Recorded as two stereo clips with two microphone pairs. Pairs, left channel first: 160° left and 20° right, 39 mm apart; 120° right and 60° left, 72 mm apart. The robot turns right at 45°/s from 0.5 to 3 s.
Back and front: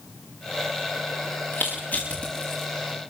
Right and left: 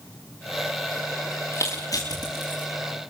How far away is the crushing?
About 8 m.